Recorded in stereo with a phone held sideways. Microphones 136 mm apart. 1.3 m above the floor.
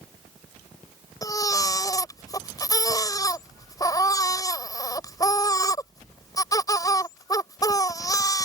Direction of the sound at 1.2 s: 25° left (ahead or behind).